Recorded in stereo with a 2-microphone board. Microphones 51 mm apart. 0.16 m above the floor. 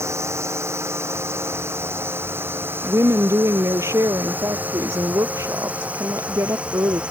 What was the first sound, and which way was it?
A drone, 60° right (ahead or behind).